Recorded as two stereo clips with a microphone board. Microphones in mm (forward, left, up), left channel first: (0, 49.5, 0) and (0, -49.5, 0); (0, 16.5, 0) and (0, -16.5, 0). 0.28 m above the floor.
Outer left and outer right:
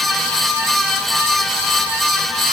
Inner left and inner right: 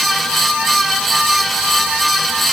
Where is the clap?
I don't hear a clap.